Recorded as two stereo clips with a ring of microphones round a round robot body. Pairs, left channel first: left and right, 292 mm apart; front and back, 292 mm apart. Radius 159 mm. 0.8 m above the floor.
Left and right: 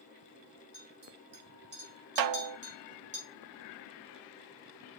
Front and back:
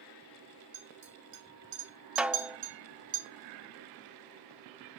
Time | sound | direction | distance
0.7 | a clink | 160° right | 3 m
2.2 | a snare drum | 95° right | 0.6 m